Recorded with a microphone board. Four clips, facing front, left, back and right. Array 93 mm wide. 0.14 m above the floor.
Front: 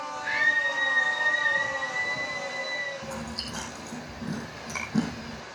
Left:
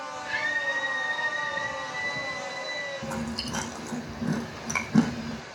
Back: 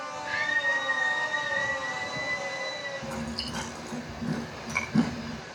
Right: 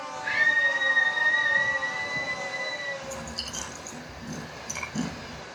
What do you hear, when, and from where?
0.2 s a scream: 55° right, 7 m; by 2.9 s 50° right, 10.5 m
3.0 s chewing: 85° left, 4 m